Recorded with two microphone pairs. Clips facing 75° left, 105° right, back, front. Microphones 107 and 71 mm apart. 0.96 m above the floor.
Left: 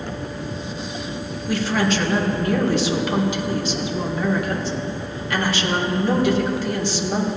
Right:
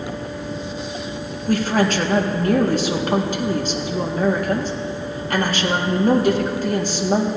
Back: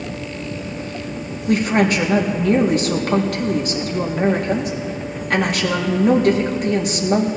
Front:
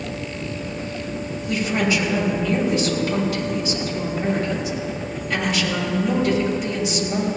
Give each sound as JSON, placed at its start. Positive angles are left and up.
{"t": 1.5, "sound": "a woman speaking", "azimuth_deg": -145, "distance_m": 1.6}